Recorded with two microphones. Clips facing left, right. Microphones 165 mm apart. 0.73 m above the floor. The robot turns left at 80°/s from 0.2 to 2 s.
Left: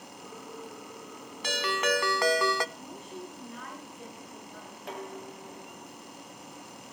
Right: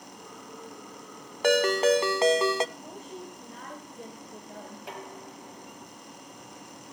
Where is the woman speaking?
45° right (ahead or behind), 4 m.